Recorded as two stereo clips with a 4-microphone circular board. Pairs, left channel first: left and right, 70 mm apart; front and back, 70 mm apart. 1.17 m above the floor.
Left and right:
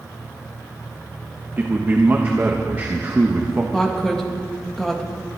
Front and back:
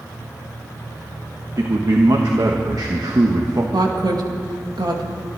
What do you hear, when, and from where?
1.6 s a man speaking: 150° right, 1.4 m
3.7 s a woman speaking: 170° left, 2.0 m